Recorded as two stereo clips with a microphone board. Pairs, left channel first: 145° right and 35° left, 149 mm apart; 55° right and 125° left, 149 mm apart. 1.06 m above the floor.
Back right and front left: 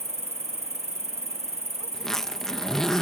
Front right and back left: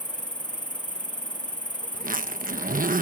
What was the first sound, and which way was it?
An insect, straight ahead.